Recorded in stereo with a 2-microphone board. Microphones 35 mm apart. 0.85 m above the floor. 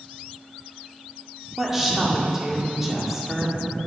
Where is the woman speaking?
10° right (ahead or behind), 1.8 m.